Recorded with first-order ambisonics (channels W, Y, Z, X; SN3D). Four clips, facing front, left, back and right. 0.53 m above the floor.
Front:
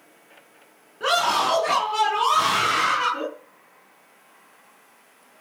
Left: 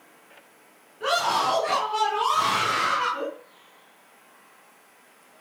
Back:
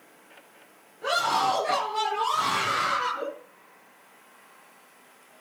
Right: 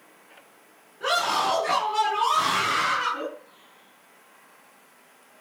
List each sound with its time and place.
1.0 s a scream: 5° left, 8 m; by 3.3 s 15° left, 7 m